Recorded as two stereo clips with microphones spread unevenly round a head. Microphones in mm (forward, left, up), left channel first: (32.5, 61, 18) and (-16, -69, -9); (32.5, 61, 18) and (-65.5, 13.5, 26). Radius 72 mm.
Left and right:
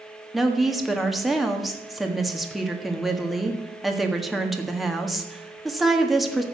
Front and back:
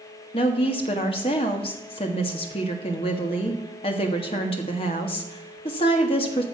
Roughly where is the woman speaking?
Ahead.